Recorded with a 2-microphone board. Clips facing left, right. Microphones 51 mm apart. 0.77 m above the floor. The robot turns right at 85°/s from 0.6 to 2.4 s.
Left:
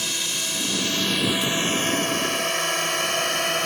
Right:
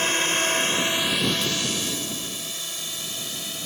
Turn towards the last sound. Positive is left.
turn(degrees=70)  # may be behind; listen again after turning